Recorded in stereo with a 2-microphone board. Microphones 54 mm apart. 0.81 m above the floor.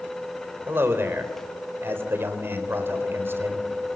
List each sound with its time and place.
0.7 s a man speaking: 45° right (ahead or behind), 4 m